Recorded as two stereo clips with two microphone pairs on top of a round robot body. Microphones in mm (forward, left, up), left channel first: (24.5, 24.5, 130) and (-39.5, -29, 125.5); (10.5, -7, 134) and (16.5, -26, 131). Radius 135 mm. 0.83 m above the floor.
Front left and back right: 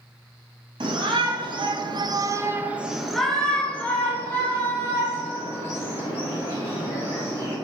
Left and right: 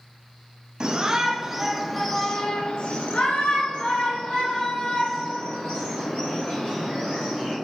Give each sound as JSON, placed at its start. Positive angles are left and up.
{"t": 0.8, "sound": "a shout", "azimuth_deg": -125, "distance_m": 0.9}